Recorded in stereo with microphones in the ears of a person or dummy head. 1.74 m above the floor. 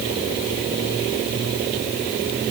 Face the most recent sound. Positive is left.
No sound to turn to.